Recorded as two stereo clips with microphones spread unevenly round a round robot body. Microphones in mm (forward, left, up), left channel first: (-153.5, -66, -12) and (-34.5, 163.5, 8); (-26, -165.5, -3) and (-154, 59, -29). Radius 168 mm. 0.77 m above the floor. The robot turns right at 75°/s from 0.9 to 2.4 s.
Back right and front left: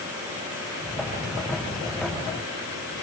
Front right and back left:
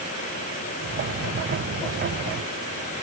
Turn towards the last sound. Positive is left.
No sound to turn to.